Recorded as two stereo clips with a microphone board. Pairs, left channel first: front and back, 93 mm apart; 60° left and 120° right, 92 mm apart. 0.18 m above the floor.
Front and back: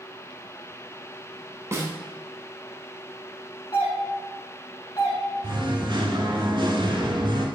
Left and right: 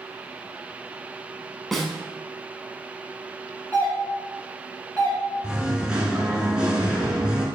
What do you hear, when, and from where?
1.7 s a snare drum: 145° left, 0.6 m
3.7 s a doorbell: straight ahead, 1.9 m
5.4 s singing: 160° left, 0.7 m